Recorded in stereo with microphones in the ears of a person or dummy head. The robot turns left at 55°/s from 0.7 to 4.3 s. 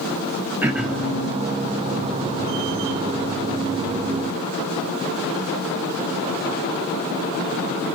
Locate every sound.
0.6 s throat clearing: 5° right (ahead or behind), 0.7 m; by 1.1 s 15° left (ahead or behind), 0.7 m